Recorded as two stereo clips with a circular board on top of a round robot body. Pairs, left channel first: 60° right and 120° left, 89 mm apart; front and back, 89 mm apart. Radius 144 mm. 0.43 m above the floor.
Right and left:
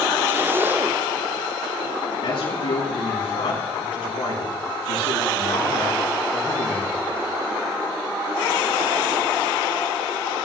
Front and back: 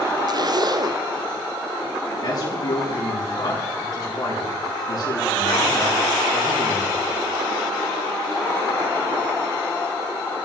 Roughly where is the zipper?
Behind.